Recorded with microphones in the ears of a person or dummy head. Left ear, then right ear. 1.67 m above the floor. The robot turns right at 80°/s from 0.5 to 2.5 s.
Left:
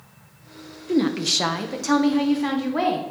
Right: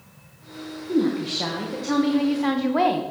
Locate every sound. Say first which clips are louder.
0.9 s a woman speaking: left 2 dB; 55° left, 1.0 m; by 3.0 s 175° right, 1.0 m